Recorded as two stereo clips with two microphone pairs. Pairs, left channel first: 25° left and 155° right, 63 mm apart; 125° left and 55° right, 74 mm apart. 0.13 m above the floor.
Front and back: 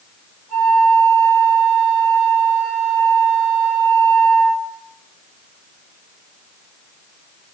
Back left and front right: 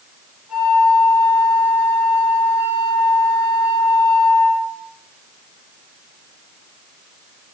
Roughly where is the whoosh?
No whoosh in this recording.